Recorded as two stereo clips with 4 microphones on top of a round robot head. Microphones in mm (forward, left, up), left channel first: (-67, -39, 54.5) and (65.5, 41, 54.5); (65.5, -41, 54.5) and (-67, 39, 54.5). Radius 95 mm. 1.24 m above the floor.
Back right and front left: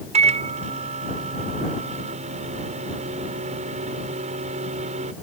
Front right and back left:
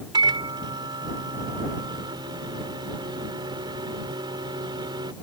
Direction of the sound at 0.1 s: 85° left.